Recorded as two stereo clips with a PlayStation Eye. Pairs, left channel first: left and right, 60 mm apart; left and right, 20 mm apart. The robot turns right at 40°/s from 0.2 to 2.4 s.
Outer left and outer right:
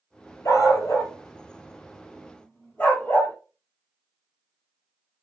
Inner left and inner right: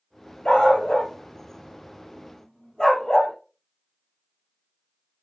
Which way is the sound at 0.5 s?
60° left (ahead or behind).